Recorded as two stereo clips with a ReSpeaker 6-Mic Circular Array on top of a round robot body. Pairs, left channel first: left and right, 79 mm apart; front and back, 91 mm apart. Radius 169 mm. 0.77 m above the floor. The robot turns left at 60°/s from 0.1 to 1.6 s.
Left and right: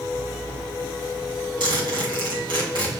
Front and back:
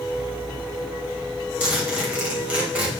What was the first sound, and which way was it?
A zipper, 110° right.